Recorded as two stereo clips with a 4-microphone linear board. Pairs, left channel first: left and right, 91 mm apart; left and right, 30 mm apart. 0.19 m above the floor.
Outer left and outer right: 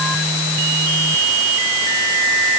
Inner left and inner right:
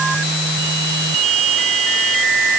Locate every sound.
Only background noise.